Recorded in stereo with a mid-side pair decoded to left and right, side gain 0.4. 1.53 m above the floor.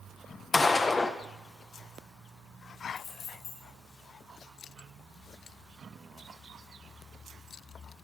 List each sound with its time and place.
0.5 s a gunshot: 30° left, 1.0 m
3.0 s keys jangling: 65° left, 6 m